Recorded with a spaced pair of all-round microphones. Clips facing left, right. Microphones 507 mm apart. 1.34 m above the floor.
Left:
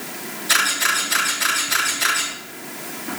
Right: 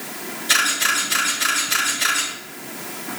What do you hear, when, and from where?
0.5 s a camera shutter: 50° right (ahead or behind), 3.5 m